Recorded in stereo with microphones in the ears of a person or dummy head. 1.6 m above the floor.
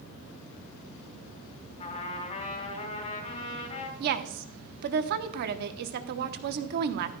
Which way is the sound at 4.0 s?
50° right (ahead or behind).